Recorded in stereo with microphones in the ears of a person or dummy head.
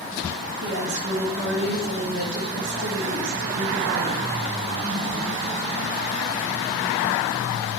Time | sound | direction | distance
0.6 | a woman speaking | 60° right (ahead or behind) | 2 m